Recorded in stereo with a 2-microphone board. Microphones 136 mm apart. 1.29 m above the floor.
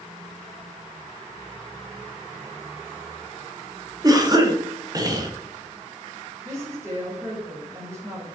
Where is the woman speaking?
25° right (ahead or behind), 4 m.